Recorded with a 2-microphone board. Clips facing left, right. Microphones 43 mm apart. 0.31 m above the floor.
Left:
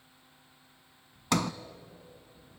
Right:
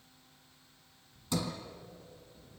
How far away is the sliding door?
About 1.0 m.